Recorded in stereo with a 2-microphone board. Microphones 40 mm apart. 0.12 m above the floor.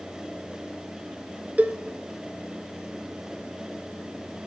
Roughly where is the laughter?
I don't hear laughter.